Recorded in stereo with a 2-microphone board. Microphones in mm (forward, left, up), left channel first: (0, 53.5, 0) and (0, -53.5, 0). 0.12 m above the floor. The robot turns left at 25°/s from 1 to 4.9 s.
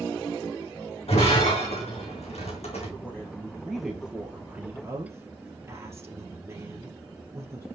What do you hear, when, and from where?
1.1 s breaking glass: 65° left (ahead or behind), 4.5 m; by 2.9 s 70° left (ahead or behind), 4.5 m
3.0 s a woman speaking: 20° left, 3 m; by 7.7 s 30° right, 3 m